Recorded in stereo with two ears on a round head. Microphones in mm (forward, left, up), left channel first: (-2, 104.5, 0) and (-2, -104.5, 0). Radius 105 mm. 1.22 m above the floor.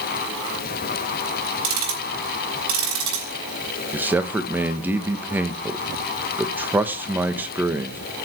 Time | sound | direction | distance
1.6 | ticking | 85° right | 5 m
3.9 | a man speaking | 10° right (ahead or behind) | 1.2 m